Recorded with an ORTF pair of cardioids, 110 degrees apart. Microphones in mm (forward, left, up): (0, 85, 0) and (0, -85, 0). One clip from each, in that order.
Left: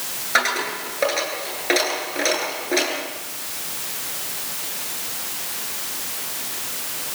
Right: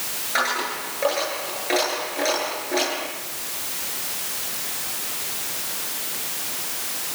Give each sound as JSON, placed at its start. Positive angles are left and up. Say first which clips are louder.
{"t": 0.3, "sound": "a dropped coin", "louder": "left 3 dB", "azimuth_deg": 40, "distance_m": 10.0}